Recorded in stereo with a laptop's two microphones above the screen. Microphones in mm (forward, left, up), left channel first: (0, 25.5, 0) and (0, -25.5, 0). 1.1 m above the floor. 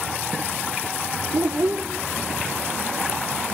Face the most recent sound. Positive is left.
turn(degrees=-55)  # may be behind; listen again after turning